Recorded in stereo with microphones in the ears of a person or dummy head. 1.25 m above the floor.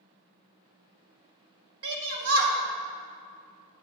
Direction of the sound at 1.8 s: 85° right.